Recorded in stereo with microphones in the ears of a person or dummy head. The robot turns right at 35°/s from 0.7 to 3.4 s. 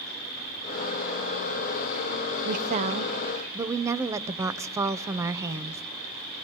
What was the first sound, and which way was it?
An insect, 135° left.